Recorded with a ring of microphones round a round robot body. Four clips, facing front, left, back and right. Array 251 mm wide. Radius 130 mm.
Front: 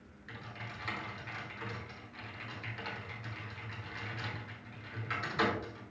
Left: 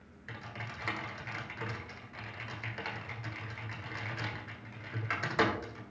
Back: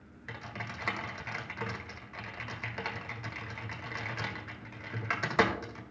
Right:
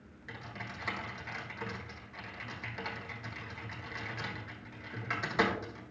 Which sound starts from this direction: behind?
Typing on a keyboard, at 0.3 s.